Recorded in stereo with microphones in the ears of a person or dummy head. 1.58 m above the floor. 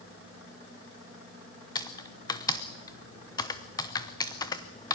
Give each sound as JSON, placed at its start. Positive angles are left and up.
{"t": 1.8, "sound": "typing on a keyboard", "side_deg": 30, "distance_m": 0.8}